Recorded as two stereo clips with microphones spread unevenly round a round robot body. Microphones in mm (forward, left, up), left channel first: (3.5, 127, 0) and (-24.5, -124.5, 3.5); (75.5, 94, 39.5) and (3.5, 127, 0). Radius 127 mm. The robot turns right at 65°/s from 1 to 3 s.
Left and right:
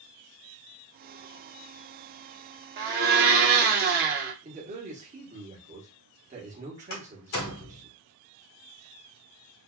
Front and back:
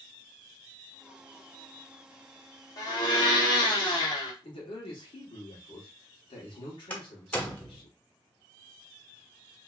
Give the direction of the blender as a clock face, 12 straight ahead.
3 o'clock.